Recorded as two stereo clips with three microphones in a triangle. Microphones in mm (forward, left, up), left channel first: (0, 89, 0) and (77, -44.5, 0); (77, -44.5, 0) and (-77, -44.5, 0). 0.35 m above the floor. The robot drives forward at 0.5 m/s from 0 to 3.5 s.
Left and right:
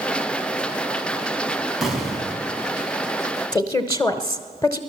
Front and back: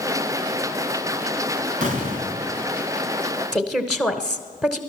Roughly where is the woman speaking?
Left.